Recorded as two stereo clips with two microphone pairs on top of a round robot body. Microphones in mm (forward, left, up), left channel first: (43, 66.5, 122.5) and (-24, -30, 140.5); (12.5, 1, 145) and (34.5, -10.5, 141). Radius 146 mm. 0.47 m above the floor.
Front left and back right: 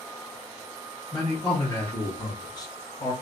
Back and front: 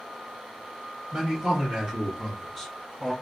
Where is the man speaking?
10° left, 1.4 m; by 3.1 s 85° left, 0.9 m.